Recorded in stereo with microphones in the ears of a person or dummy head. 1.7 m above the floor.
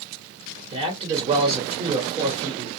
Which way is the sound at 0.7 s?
30° right (ahead or behind).